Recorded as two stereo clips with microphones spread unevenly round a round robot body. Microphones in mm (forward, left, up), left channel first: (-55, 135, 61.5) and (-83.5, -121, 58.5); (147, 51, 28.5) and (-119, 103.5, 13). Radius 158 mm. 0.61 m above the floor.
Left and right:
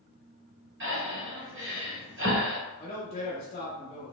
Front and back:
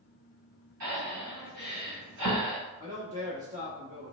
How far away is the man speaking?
About 1.0 m.